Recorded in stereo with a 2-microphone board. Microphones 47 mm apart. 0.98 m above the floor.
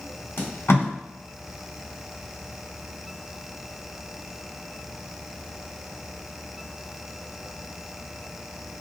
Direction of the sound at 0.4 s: 60° left (ahead or behind).